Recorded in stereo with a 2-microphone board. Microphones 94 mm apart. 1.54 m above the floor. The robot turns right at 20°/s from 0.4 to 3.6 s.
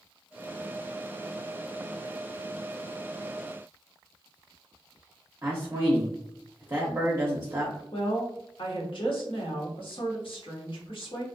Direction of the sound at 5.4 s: 25° right (ahead or behind).